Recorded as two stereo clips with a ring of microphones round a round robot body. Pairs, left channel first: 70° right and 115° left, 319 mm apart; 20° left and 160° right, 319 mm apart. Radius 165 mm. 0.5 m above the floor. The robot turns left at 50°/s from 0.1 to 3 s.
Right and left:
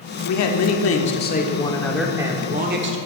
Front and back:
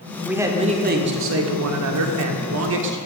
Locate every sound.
0.2 s a man speaking: 70° right, 1.0 m; by 3.0 s 155° left, 1.0 m